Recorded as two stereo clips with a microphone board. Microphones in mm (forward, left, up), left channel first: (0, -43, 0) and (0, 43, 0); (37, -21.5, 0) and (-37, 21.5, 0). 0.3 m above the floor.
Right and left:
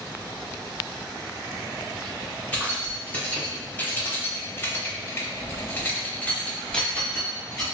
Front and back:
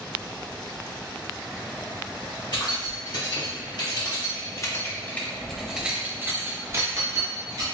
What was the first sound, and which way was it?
Keys jangling, 20° right.